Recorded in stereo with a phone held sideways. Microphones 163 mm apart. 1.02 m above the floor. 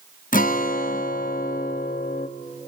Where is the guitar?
60° left (ahead or behind), 0.7 m.